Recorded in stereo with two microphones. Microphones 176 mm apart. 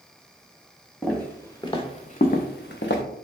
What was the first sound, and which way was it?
Footsteps, 5° left (ahead or behind).